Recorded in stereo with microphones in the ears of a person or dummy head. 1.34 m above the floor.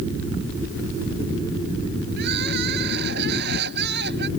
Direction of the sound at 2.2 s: 70° right (ahead or behind).